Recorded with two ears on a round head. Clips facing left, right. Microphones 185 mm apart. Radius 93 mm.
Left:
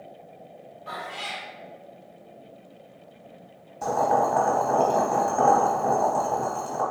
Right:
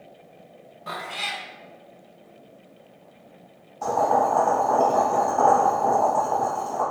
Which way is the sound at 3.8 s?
20° left (ahead or behind).